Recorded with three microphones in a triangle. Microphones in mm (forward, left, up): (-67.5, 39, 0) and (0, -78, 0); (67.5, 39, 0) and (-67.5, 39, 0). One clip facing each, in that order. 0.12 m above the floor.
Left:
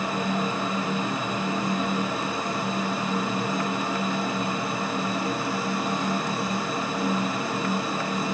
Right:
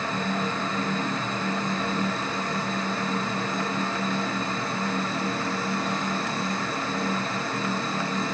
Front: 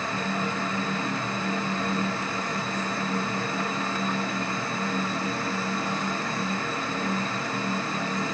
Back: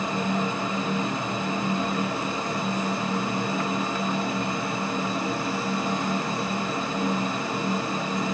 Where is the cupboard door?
No cupboard door in this recording.